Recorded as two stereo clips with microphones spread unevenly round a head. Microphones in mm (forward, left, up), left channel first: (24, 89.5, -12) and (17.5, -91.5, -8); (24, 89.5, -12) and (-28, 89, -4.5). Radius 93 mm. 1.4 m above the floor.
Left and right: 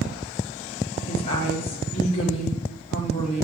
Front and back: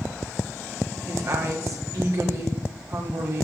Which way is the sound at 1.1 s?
150° left.